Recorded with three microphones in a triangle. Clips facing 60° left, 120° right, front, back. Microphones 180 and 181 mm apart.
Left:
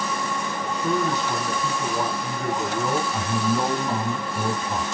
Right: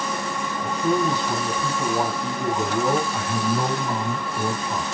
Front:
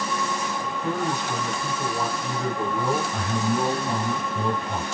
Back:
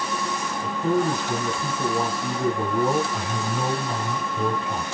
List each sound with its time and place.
0.6 s a man speaking: 155° right, 1.6 m
3.1 s a man speaking: straight ahead, 1.6 m